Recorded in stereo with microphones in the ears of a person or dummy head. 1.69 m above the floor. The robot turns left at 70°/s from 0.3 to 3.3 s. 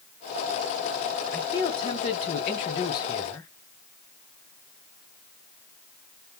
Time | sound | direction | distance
1.3 | a man speaking | 165° left | 0.7 m